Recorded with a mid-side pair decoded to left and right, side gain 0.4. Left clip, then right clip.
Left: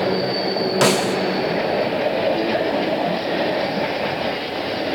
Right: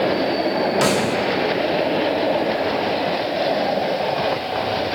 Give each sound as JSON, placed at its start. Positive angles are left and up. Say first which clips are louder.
{"t": 0.8, "sound": "a snare drum", "louder": "left 1 dB", "azimuth_deg": 35, "distance_m": 0.6}